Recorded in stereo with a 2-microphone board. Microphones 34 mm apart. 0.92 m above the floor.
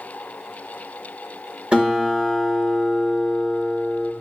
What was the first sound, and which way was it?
A guitar, 35° right (ahead or behind).